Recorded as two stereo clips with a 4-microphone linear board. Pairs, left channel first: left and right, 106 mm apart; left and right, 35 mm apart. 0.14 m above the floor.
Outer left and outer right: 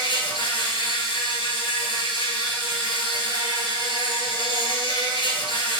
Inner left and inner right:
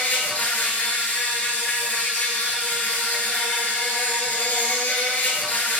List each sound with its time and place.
0.0 s an insect: 55° left (ahead or behind), 1.3 m